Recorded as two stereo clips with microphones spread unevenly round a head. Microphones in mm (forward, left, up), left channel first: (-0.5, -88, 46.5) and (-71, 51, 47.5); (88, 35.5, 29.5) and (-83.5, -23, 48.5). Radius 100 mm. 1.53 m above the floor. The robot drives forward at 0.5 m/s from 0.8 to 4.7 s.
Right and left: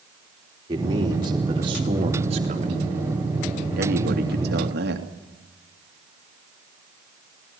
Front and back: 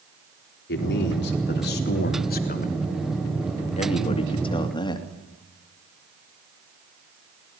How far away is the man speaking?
About 3 m.